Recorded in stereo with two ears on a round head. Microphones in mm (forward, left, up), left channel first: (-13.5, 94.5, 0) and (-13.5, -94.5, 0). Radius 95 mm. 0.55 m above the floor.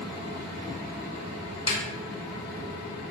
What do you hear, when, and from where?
1.7 s a snare drum: 15° left (ahead or behind), 1.1 m